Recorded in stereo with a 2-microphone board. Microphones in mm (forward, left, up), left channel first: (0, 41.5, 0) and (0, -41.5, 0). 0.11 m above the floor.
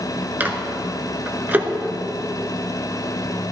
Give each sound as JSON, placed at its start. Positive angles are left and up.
{"t": 0.4, "sound": "a microwave", "side_deg": -25, "distance_m": 1.0}